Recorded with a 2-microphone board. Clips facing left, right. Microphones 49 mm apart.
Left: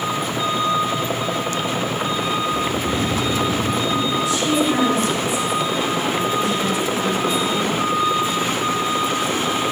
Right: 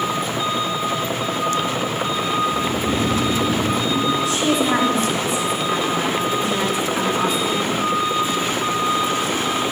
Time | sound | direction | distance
2.4 | snoring | 80° right | 2 m
4.2 | a woman speaking | 75° right (ahead or behind) | 4.5 m